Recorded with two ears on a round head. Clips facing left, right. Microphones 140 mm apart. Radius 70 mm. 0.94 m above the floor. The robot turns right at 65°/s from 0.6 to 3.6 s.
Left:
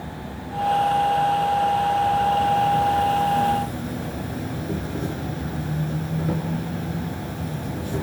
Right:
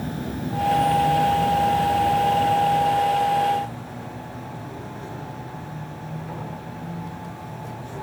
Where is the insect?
125° right, 5 m; by 8.0 s 70° left, 5 m.